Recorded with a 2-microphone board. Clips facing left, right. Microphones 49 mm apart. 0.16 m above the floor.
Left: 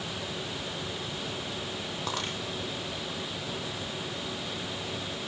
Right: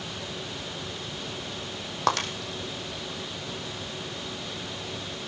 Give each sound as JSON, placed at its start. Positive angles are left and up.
{"t": 2.1, "sound": "breaking glass", "side_deg": -70, "distance_m": 3.5}